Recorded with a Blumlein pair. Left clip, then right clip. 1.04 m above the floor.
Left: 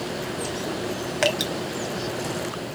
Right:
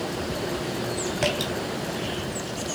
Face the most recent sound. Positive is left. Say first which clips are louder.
# left 4 dB
turn(degrees=65)